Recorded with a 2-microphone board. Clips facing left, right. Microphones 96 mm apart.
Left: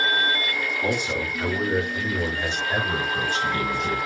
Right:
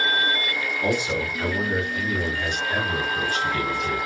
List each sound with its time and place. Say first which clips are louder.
0.8 s a man speaking: right 2 dB; 10° right (ahead or behind), 1.0 m; by 4.0 s 35° left (ahead or behind), 1.9 m